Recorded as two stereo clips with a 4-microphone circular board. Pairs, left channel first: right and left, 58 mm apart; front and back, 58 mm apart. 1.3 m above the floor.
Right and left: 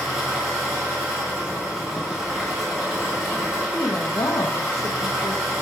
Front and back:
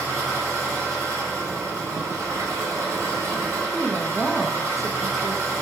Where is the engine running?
160° left, 2.5 m.